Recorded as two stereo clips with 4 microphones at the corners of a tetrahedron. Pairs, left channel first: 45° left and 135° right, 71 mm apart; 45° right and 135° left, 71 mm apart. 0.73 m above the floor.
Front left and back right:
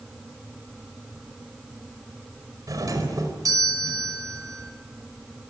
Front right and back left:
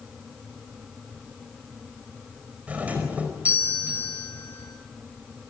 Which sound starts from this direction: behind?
A doorbell, at 2.7 s.